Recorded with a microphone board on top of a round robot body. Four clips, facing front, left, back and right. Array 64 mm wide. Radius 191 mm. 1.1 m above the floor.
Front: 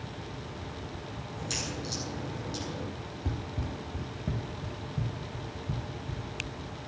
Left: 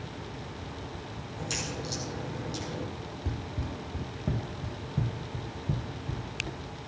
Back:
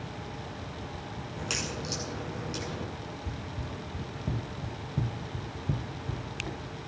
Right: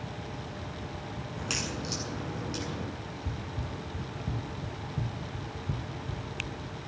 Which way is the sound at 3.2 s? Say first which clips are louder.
Left 3 dB, front 2 dB; 20° left.